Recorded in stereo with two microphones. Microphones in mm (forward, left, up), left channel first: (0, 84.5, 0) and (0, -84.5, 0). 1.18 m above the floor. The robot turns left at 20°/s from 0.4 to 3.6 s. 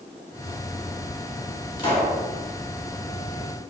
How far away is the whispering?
No whispering in this recording.